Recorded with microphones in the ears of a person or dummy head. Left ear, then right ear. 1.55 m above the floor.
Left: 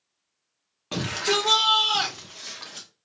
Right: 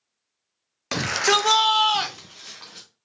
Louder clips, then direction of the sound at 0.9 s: Right 4 dB; 60° right (ahead or behind).